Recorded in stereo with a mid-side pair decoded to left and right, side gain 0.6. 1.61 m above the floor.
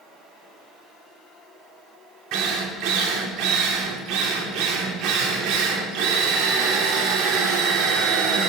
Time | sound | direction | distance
2.3 | a drill | 65° right | 2.5 m